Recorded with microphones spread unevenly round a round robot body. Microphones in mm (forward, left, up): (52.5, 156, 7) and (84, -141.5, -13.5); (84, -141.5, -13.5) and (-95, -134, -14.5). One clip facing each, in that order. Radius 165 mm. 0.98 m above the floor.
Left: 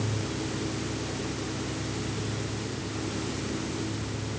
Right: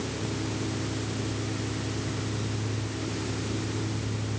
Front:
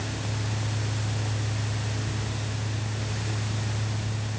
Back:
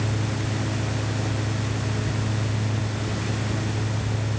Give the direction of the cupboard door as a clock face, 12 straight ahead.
I don't hear a cupboard door.